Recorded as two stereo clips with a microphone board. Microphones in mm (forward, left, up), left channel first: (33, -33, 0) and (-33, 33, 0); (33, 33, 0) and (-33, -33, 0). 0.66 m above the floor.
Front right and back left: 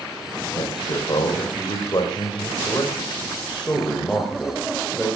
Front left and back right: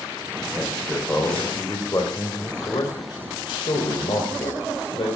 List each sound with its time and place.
0.6 s a man speaking: 20° right, 3.5 m; by 5.1 s 50° left, 4 m